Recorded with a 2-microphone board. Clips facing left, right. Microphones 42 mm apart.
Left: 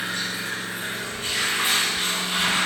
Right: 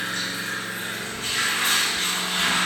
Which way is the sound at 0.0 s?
20° left (ahead or behind).